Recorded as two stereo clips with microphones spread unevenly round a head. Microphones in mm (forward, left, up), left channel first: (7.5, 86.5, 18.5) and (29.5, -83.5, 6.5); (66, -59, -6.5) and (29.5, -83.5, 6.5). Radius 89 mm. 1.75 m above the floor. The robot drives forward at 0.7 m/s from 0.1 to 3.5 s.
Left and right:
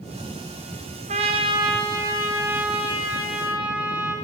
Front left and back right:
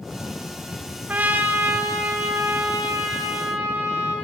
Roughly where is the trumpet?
Behind right.